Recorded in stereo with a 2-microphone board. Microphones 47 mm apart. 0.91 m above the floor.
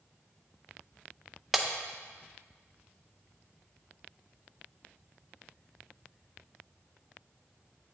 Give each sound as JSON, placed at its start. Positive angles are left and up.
{"t": 1.5, "sound": "breaking glass", "side_deg": 0, "distance_m": 0.5}